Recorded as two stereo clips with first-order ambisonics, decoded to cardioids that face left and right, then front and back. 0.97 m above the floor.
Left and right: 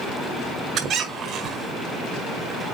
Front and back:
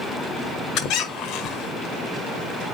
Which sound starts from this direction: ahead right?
A squeak, at 0.8 s.